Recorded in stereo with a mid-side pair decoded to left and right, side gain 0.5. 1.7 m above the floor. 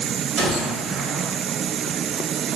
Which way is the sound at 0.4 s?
50° right.